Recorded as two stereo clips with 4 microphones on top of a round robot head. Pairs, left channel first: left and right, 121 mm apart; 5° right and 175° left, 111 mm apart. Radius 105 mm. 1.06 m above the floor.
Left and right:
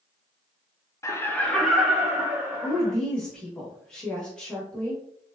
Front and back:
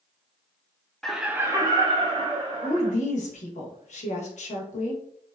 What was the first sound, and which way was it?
Laughter, 75° left.